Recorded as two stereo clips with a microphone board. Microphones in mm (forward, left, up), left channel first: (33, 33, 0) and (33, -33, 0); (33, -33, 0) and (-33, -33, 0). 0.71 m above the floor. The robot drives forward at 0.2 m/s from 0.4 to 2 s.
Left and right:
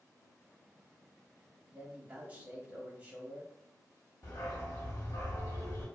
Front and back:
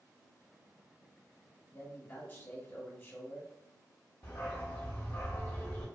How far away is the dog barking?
About 0.9 m.